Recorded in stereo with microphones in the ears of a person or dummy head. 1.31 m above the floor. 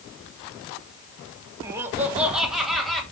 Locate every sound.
1.6 s laughter: 20° right (ahead or behind), 1.5 m; by 3.0 s centre (ahead or behind), 2.5 m